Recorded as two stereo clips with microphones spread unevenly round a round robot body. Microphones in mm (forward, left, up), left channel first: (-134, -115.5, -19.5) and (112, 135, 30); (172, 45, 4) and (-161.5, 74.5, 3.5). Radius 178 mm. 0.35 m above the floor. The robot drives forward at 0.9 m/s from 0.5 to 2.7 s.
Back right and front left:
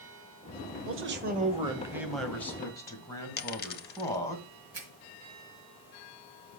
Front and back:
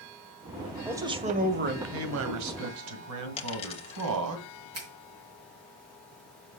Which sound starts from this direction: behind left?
A finger snap, at 4.8 s.